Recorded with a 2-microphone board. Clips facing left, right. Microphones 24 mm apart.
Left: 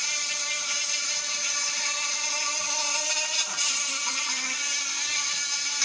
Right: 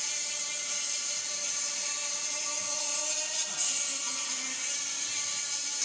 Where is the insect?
45° left (ahead or behind), 2.0 m.